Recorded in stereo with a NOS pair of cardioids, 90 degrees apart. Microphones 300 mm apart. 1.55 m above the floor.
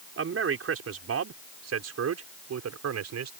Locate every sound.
0.2 s a man speaking: 45° right; by 3.3 s 60° right